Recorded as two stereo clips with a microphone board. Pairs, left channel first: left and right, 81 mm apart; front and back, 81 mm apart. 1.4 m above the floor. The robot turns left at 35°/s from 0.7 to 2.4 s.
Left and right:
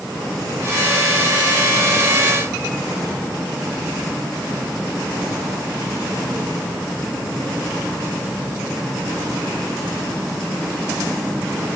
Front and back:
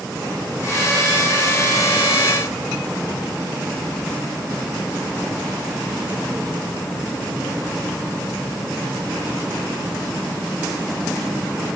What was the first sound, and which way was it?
Only background noise.